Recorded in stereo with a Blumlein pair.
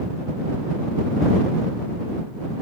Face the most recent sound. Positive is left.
No sound to turn to.